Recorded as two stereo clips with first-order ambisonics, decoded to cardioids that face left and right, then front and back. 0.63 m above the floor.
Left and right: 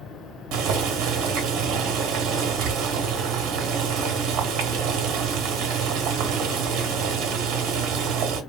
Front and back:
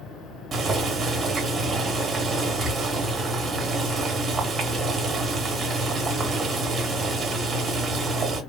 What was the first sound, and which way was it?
Boiling, 115° right.